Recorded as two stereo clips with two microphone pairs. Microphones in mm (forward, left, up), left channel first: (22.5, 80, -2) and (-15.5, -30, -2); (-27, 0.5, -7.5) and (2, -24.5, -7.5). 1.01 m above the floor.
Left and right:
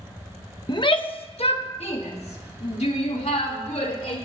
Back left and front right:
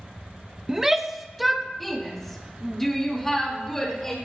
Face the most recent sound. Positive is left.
turn(degrees=60)